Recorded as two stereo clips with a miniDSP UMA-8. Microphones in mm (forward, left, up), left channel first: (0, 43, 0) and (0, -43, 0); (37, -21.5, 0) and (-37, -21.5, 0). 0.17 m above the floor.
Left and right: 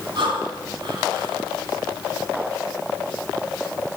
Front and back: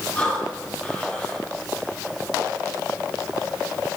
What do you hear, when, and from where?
0.1 s breathing: 75° right, 6.5 m